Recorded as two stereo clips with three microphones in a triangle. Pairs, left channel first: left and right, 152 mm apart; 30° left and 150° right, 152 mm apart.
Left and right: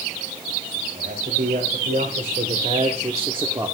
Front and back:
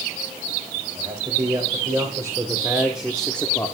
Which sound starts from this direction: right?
A man speaking, at 0.9 s.